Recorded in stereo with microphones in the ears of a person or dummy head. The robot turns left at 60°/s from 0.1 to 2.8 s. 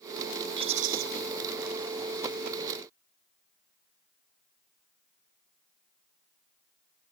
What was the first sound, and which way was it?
A rattle, 30° right (ahead or behind).